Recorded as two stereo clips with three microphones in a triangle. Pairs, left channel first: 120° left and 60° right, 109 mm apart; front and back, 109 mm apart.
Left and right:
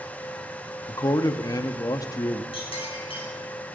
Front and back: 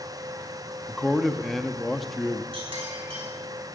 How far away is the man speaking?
About 0.6 m.